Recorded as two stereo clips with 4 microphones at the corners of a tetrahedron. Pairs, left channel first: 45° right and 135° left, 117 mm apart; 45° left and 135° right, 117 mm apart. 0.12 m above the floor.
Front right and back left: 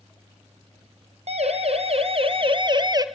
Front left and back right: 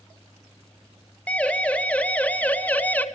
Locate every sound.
1.3 s a siren: 120° left, 3 m; by 3.0 s 110° left, 1.6 m